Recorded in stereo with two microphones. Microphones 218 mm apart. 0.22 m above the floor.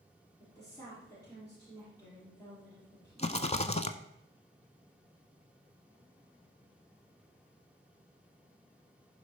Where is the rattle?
30° left (ahead or behind), 0.7 m.